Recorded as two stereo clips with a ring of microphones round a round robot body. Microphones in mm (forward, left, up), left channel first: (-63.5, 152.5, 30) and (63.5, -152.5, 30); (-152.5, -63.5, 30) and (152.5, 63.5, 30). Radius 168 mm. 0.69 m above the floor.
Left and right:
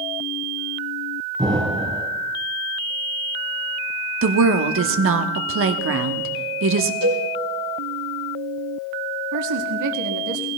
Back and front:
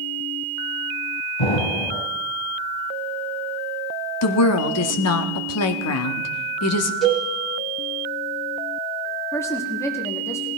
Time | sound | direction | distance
1.4 | an explosion | 145° right | 1.3 m
4.2 | a woman speaking | 115° right | 1.1 m
7.0 | a cowbell | 70° right | 3.5 m
9.3 | a woman speaking | 75° right | 1.3 m